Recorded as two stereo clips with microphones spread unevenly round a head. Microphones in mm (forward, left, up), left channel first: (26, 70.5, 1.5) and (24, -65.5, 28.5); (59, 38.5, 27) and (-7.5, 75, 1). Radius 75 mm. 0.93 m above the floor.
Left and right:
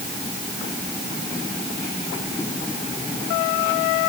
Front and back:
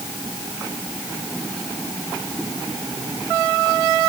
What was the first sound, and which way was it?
Only background noise.